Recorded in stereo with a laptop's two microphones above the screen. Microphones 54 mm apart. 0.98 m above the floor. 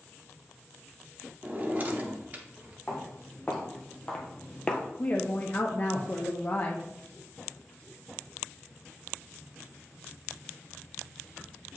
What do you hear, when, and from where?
1.4 s a drawer: 30° right (ahead or behind), 0.7 m
2.9 s footsteps: 10° left (ahead or behind), 2.5 m; by 4.8 s 15° left (ahead or behind), 1.0 m
5.0 s a woman speaking: 35° left (ahead or behind), 0.6 m